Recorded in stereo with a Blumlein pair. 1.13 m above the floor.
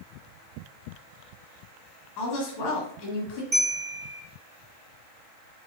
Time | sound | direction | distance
2.2 | a woman speaking | 45° left | 2 m
3.5 | a bell | 15° right | 1.6 m